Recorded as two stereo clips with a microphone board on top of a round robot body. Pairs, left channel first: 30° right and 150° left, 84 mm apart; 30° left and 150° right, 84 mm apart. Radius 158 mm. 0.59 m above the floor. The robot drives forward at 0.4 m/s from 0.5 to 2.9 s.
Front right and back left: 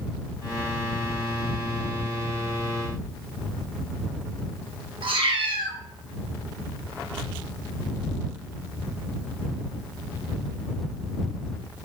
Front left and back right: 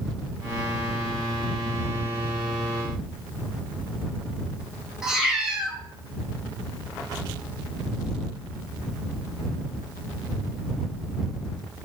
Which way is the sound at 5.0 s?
125° left.